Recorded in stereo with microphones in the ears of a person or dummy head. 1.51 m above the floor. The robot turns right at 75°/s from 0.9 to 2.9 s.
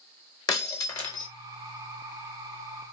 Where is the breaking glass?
20° left (ahead or behind), 1.1 m; by 1.3 s 40° left (ahead or behind), 1.1 m.